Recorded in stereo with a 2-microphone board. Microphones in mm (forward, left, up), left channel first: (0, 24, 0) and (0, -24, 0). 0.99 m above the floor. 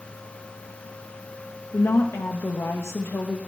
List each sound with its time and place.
1.7 s a woman speaking: 70° left (ahead or behind), 0.8 m